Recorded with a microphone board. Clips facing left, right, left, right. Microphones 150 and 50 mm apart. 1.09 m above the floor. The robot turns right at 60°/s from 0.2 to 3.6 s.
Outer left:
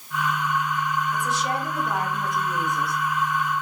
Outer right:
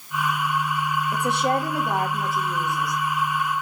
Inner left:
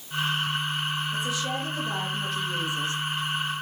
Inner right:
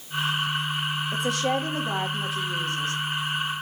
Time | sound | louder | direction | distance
1.1 | a woman speaking | outer right 4 dB, inner right 4 dB | 80° right | 2 m